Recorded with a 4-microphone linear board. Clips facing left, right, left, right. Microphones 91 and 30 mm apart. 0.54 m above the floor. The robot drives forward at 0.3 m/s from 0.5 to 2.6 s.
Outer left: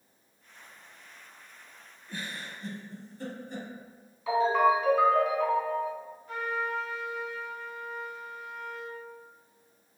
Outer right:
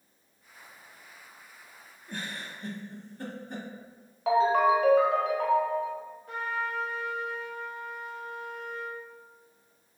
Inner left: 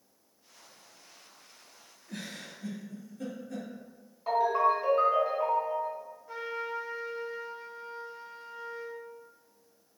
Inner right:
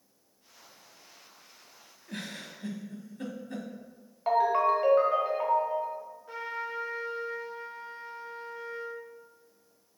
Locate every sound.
2.1 s a giggle: 60° right (ahead or behind), 0.6 m; by 3.7 s 55° right (ahead or behind), 0.6 m
4.3 s a ringtone: 80° right, 0.9 m
6.3 s a trumpet: 70° right (ahead or behind), 1.0 m